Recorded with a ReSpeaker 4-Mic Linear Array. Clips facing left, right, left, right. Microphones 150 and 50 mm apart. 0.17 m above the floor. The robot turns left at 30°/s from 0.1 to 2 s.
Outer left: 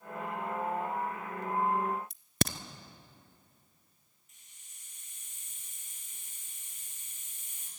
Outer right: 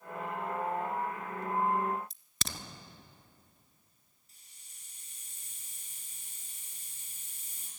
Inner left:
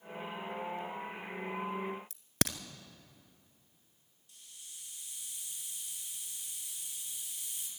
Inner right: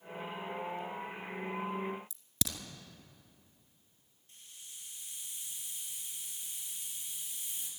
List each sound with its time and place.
2.1 s a crack: 60° left (ahead or behind), 0.8 m
4.3 s a hiss: 35° right (ahead or behind), 4.5 m